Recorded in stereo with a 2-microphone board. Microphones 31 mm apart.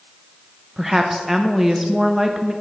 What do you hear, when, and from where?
0.8 s a woman speaking: 10° right (ahead or behind), 0.6 m